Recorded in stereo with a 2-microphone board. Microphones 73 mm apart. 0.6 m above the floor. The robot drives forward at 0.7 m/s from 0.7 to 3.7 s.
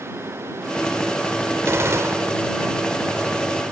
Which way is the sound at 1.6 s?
35° right (ahead or behind).